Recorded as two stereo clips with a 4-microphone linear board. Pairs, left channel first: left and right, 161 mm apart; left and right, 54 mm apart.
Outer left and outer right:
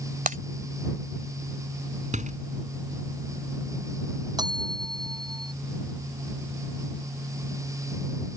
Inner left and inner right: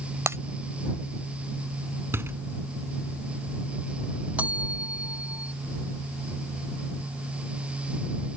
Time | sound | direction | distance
0.3 | breaking glass | 55° right (ahead or behind) | ?
2.1 | a door slam | 50° right (ahead or behind) | ?
4.4 | a bell | 25° right (ahead or behind) | ?